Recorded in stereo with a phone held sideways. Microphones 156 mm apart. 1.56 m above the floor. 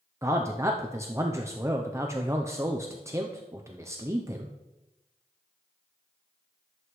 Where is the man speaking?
15° right (ahead or behind), 0.6 m.